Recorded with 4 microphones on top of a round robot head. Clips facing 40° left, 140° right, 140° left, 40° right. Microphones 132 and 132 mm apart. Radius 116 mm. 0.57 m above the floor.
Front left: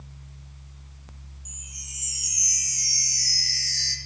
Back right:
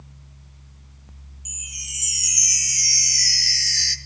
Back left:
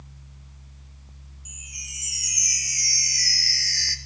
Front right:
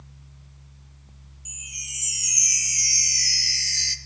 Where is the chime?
110° right, 0.5 m.